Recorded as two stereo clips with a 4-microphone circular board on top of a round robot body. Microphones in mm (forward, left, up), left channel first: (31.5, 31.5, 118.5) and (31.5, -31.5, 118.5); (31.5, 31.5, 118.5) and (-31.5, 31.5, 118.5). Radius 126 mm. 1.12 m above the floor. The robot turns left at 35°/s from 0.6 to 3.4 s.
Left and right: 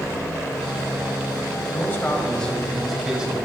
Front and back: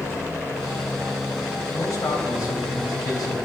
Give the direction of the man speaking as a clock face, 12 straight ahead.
11 o'clock.